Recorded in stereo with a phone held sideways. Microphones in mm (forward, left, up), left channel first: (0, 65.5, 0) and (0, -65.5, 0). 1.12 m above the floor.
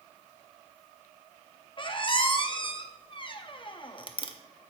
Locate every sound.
1.8 s a squeak: 35° left (ahead or behind), 0.6 m